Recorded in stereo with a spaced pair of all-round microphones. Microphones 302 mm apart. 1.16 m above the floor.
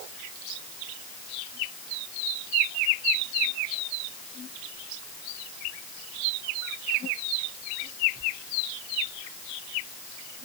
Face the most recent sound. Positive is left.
No sound to turn to.